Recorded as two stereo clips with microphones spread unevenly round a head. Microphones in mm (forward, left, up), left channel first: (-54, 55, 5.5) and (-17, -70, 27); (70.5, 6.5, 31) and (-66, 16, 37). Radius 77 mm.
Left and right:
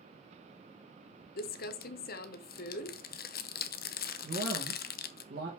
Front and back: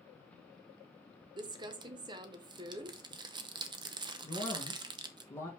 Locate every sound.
1.4 s crumpling: 120° left, 0.8 m
4.2 s a man speaking: 80° right, 1.8 m